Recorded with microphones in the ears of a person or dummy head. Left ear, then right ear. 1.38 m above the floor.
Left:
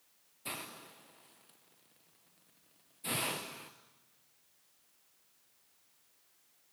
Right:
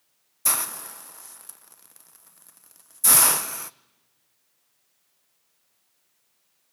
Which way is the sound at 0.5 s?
55° right (ahead or behind).